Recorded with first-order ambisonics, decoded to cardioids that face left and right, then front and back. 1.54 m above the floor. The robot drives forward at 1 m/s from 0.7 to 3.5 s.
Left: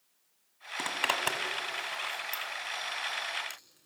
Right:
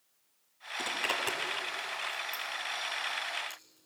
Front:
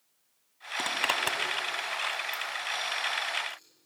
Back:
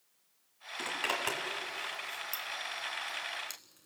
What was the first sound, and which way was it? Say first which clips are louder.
A zipper: left 2 dB, front 5 dB; 35° left.